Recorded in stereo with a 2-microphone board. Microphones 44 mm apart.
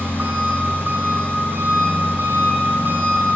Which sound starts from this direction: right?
An engine running, at 0.0 s.